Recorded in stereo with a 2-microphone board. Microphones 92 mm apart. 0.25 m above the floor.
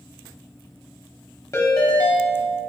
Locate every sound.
1.5 s a ringtone: 35° left (ahead or behind), 0.7 m